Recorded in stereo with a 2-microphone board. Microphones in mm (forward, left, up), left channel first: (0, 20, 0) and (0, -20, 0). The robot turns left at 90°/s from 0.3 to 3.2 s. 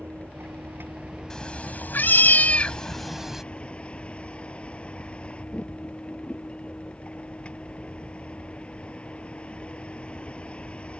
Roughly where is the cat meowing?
Behind.